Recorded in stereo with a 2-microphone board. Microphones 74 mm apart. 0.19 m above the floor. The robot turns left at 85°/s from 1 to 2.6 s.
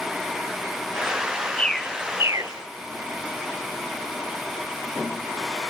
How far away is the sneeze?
No sneeze in this recording.